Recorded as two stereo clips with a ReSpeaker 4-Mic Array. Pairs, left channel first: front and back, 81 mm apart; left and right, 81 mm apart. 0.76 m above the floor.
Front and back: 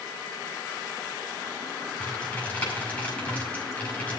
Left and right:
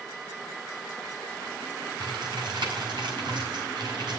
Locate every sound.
2.0 s typing on a keyboard: 75° right, 5.5 m